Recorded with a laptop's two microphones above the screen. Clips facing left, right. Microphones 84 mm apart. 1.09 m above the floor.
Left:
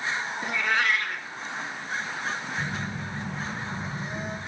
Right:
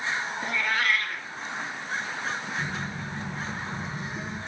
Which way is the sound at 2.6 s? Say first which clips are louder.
Even; 55° left (ahead or behind).